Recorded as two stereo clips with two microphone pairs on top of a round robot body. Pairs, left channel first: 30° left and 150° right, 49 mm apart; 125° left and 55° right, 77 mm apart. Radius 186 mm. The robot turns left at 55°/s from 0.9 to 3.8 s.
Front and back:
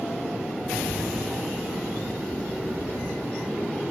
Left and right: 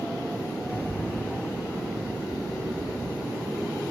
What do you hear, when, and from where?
0.6 s a rattle: straight behind, 1.1 m; by 3.8 s 20° left, 1.1 m